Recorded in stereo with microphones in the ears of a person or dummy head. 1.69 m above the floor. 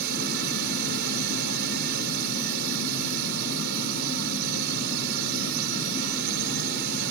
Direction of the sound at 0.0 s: 55° right (ahead or behind).